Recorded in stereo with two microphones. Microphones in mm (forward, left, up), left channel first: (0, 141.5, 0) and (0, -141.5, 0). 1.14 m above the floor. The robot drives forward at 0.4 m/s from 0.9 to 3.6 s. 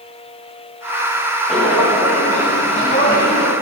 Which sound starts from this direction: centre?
Footsteps, at 1.5 s.